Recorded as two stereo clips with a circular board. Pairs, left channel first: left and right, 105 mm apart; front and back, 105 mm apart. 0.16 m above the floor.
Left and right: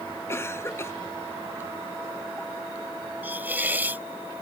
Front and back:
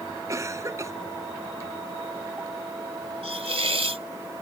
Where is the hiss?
160° right.